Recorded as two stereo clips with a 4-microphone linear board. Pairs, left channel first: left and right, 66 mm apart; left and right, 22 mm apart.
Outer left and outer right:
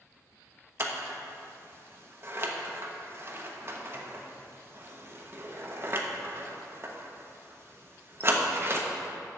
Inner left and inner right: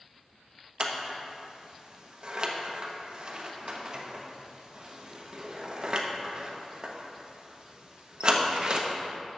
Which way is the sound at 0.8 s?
35° right (ahead or behind).